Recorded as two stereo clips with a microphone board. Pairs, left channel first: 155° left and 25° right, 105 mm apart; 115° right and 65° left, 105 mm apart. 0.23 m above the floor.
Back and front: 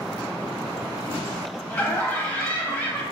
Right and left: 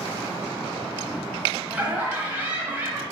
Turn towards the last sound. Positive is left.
turn(degrees=110)